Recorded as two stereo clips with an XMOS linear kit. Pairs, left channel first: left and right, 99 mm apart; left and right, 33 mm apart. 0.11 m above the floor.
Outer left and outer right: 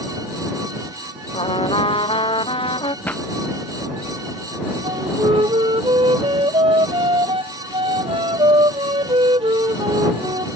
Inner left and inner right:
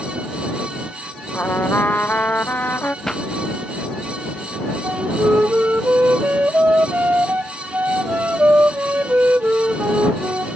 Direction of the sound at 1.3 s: 65° left (ahead or behind).